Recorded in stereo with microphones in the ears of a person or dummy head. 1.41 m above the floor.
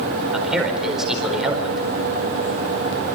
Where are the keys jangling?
No keys jangling in this recording.